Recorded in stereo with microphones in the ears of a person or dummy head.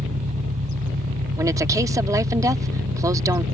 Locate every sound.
0.0 s an engine running: 40° right (ahead or behind)
1.4 s a woman speaking: 20° right (ahead or behind)